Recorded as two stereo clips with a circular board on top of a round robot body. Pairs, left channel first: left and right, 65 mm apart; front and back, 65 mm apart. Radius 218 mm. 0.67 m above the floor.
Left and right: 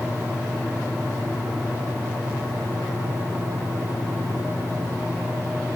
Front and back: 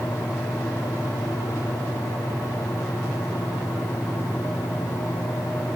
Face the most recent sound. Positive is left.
No sound to turn to.